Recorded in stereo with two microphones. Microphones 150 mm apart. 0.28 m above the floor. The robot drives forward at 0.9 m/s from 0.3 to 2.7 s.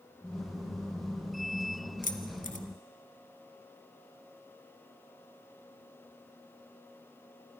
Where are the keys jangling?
60° left (ahead or behind), 1.6 m; by 2.6 s 65° left (ahead or behind), 1.6 m.